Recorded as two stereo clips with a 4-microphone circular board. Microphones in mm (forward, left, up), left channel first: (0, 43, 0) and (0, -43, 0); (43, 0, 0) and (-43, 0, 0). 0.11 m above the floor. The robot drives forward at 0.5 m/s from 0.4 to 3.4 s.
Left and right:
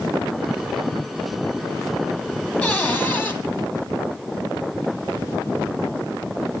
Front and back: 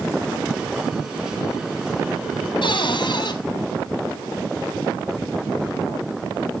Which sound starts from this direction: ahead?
A cupboard door, at 2.6 s.